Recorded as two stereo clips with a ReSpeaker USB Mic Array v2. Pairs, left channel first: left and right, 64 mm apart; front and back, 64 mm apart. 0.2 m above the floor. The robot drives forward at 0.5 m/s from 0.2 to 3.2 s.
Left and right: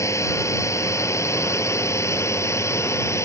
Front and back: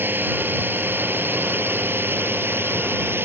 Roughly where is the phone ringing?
No phone ringing in this recording.